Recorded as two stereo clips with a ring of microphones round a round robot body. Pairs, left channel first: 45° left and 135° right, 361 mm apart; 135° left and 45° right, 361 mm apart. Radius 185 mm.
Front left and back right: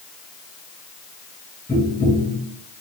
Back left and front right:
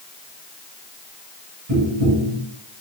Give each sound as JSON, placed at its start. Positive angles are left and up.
{"t": 1.7, "sound": "tapping", "azimuth_deg": -40, "distance_m": 1.3}